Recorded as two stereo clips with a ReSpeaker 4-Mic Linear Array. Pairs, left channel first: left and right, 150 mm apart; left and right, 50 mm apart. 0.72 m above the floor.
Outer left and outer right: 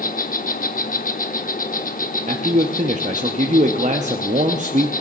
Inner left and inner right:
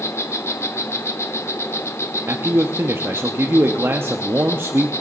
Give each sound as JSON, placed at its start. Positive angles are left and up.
{"t": 0.0, "sound": "an insect", "side_deg": 65, "distance_m": 0.8}
{"t": 2.3, "sound": "a man speaking", "side_deg": -50, "distance_m": 0.7}